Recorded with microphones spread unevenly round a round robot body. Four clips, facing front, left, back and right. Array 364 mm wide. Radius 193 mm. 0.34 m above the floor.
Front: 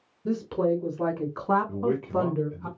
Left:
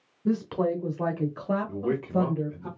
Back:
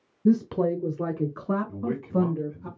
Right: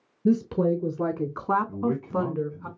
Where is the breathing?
I don't hear breathing.